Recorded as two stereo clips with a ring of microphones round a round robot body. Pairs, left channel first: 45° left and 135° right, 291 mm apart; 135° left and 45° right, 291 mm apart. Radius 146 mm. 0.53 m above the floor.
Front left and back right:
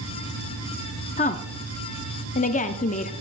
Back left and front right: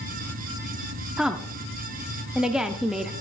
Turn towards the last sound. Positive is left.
turn(degrees=40)